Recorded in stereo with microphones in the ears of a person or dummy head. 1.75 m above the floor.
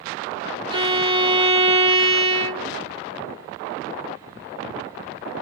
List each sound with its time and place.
0.7 s a violin: 30° right (ahead or behind), 0.5 m